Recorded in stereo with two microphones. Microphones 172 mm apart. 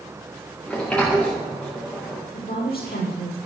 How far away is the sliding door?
About 4 m.